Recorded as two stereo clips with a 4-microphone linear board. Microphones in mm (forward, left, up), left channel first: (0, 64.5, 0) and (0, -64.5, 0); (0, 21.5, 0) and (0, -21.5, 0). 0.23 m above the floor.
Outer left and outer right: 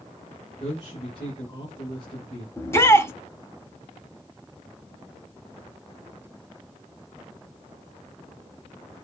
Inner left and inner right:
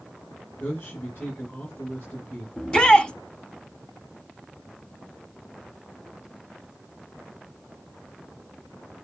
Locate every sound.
0.6 s a man speaking: 45° left (ahead or behind), 3.5 m
2.6 s a shout: 20° left (ahead or behind), 1.0 m